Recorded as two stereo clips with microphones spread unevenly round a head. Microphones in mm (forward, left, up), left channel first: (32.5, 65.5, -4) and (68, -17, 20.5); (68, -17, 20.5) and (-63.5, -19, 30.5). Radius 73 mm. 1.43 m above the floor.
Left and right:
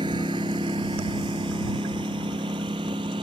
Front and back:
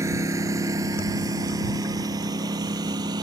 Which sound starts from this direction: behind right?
A lawn mower, at 0.0 s.